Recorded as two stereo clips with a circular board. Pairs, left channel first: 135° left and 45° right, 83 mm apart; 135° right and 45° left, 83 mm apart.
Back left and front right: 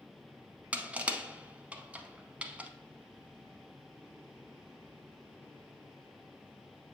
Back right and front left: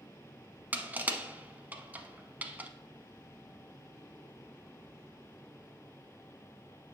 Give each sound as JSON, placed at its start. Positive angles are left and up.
{"t": 0.7, "sound": "crushing", "azimuth_deg": 10, "distance_m": 0.6}